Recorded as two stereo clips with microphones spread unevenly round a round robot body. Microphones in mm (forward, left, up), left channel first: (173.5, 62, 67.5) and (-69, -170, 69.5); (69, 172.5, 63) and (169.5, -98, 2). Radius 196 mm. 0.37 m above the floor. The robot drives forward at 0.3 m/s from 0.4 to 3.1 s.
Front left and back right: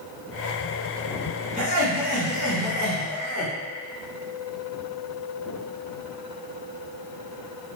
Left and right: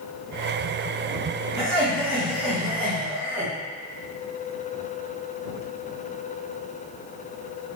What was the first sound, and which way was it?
Laughter, 160° right.